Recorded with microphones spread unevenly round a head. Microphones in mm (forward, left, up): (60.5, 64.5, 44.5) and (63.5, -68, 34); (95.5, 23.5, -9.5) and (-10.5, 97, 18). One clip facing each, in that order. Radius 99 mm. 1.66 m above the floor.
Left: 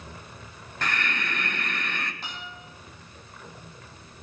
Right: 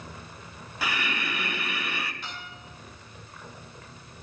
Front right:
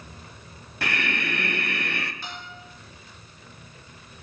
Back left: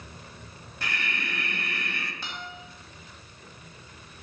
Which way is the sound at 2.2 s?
160° left.